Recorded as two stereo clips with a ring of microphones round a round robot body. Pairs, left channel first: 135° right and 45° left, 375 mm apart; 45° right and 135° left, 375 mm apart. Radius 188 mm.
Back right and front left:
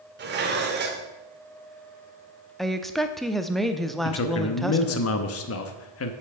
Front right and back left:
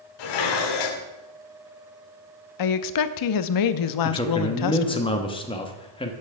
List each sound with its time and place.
0.2 s dishes clattering: 20° right, 1.4 m
2.6 s a woman speaking: 45° right, 0.7 m
4.0 s a man speaking: 115° right, 1.0 m